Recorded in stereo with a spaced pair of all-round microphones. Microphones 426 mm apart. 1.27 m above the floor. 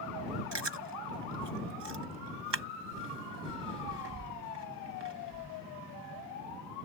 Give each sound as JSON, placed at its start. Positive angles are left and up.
{"t": 0.5, "sound": "chewing", "side_deg": -80}